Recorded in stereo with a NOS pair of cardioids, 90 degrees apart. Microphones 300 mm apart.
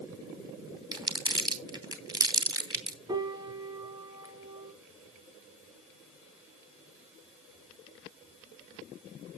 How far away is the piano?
About 1.2 m.